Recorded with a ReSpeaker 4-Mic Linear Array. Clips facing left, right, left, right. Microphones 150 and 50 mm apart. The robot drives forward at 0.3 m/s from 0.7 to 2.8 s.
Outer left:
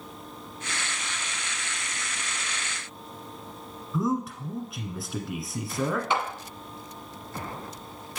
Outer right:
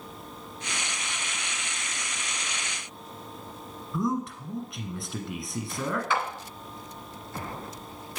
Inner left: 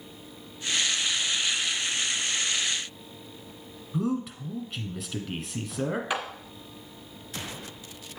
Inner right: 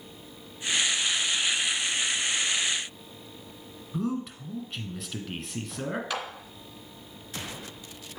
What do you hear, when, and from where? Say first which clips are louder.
3.9 s a man speaking: outer left 1 dB, inner left 2 dB; centre (ahead or behind), 1.1 m
6.1 s a clap: outer right 2 dB, inner left 2 dB; 20° left (ahead or behind), 1.1 m